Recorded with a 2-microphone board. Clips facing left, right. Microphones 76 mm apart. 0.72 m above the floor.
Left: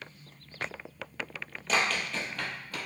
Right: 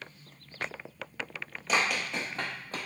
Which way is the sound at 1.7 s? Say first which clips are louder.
Even; 5° right (ahead or behind).